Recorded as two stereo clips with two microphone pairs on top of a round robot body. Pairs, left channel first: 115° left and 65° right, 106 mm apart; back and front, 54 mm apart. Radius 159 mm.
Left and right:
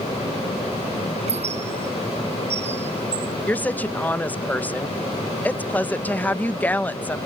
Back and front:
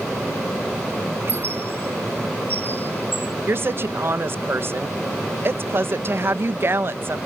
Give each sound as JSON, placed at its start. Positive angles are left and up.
{"t": 1.2, "sound": "a squeak", "azimuth_deg": -50}
{"t": 3.5, "sound": "a woman speaking", "azimuth_deg": 40}